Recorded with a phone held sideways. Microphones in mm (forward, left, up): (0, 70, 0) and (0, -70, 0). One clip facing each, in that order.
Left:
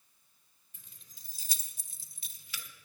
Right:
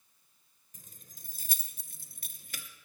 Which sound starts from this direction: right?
Keys jangling, at 0.7 s.